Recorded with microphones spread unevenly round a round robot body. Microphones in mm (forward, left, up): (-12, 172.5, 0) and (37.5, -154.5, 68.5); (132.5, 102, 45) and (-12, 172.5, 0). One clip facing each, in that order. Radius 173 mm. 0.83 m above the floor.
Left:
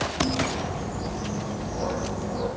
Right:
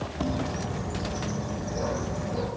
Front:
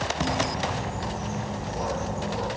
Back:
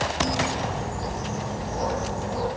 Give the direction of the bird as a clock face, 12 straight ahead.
5 o'clock.